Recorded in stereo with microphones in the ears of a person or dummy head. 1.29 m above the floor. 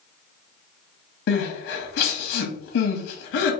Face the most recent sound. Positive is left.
turn(degrees=65)  # may be behind; listen again after turning